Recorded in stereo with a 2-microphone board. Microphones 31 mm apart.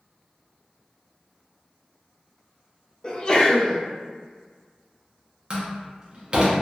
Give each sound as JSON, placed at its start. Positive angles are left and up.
{"t": 3.0, "sound": "a sneeze", "side_deg": 30, "distance_m": 0.8}
{"t": 5.5, "sound": "a door slam", "side_deg": -35, "distance_m": 0.8}